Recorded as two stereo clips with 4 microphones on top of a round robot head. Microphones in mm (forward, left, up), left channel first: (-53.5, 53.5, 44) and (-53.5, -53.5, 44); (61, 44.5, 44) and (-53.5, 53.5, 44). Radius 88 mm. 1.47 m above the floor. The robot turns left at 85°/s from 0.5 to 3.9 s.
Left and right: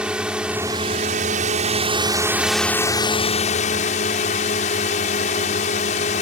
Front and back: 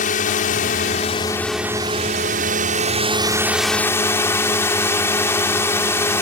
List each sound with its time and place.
0.0 s a drone: 5° right; by 6.2 s 65° left